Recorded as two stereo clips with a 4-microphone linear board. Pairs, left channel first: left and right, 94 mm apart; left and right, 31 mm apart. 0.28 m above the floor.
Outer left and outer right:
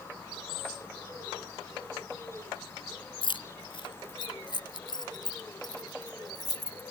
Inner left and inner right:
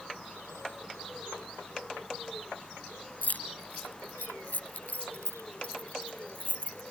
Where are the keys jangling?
65° left (ahead or behind); by 6.9 s 45° left (ahead or behind).